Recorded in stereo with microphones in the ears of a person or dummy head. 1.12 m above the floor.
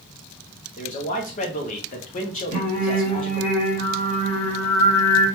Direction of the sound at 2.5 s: 20° left (ahead or behind).